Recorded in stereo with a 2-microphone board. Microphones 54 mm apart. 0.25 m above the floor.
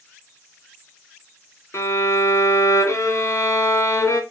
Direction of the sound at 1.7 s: 60° left (ahead or behind).